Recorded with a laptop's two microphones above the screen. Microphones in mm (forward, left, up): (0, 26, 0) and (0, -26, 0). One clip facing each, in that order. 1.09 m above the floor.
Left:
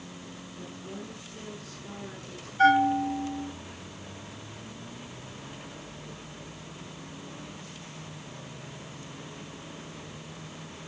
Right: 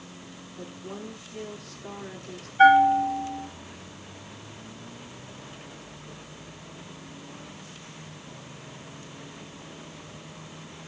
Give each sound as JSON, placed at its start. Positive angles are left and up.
{"t": 0.6, "sound": "a woman speaking", "side_deg": -40, "distance_m": 2.5}
{"t": 2.6, "sound": "a bell", "side_deg": -25, "distance_m": 3.5}